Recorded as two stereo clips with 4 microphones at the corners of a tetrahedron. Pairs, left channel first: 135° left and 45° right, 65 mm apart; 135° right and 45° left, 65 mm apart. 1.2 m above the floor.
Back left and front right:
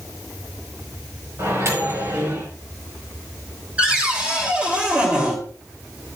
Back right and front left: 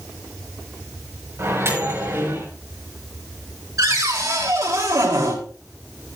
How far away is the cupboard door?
About 3 m.